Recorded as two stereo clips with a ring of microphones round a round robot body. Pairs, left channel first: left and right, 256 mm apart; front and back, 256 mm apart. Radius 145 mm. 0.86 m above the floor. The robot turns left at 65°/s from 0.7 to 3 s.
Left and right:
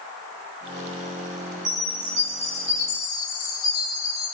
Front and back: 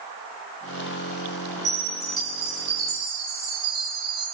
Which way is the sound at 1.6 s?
150° right.